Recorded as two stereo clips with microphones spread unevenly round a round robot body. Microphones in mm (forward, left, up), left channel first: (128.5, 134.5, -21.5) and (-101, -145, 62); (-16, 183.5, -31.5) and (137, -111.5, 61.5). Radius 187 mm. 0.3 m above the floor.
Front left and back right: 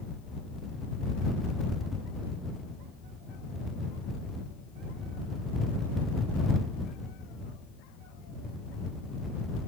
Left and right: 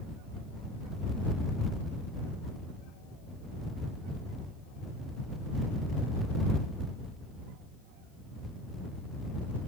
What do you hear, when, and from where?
Only background noise.